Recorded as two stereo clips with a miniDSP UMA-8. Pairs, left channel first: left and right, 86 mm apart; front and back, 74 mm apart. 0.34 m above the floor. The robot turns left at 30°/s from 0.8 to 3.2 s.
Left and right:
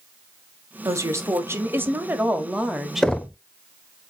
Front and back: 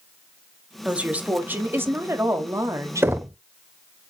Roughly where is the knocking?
Behind.